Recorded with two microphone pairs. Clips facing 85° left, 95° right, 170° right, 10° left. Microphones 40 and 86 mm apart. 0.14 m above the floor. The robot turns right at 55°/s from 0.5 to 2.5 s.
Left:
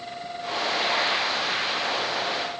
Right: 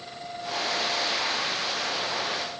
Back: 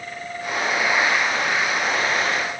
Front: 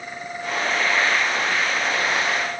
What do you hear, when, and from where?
Only background noise.